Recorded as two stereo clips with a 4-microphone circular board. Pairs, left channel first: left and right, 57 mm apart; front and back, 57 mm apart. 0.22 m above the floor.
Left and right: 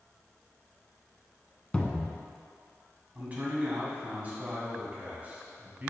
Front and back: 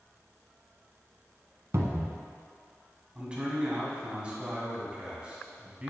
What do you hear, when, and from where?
1.7 s a cupboard door: 160° left, 0.7 m
3.1 s a man speaking: 125° right, 1.8 m